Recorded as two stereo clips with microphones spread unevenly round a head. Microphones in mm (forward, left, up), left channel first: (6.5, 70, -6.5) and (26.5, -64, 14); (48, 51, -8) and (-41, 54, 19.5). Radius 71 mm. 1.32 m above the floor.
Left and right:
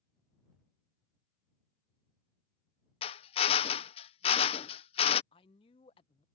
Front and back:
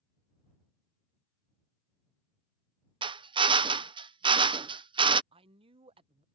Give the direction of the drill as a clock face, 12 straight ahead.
7 o'clock.